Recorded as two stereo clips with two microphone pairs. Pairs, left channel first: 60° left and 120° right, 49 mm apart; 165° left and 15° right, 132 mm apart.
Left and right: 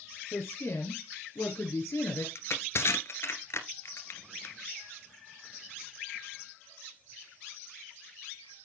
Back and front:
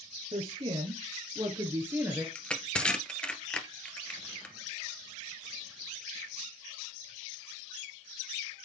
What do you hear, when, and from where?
0.3 s a woman speaking: 25° left, 2.5 m; by 2.2 s 60° left, 2.5 m
2.4 s crushing: 85° left, 1.5 m